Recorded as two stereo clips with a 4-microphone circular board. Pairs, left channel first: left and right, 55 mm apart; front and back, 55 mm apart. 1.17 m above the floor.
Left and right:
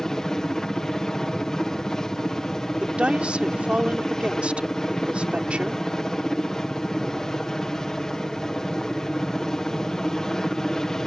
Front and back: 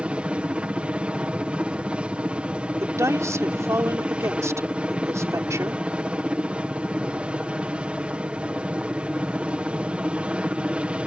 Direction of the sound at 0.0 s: 155° left.